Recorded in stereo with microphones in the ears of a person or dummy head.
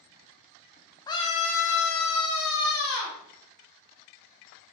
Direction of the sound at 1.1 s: 20° left (ahead or behind).